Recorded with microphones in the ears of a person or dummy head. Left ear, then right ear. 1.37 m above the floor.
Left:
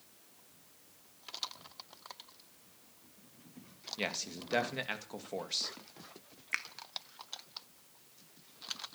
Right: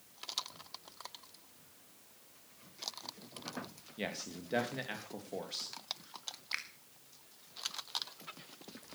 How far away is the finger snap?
About 1.5 m.